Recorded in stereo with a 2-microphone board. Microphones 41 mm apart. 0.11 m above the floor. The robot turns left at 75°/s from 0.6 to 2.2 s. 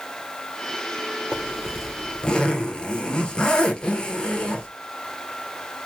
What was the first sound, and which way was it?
A zipper, 140° right.